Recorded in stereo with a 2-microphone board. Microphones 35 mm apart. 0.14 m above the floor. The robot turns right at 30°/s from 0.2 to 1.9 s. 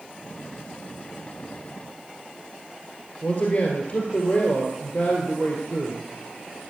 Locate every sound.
3.2 s a man speaking: 50° left (ahead or behind), 2 m